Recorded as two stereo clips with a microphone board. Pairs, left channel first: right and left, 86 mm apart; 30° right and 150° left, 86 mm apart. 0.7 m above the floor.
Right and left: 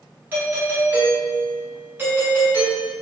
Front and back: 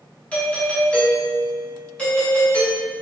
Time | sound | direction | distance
0.3 | a doorbell | 35° left | 1.2 m